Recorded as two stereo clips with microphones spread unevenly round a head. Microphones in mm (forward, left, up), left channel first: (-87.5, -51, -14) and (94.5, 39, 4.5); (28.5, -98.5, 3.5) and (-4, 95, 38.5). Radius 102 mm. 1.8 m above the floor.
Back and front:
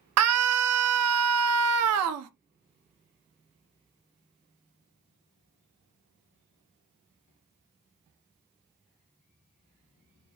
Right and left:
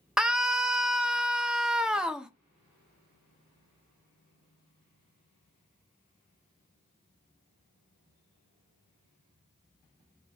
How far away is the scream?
About 0.6 m.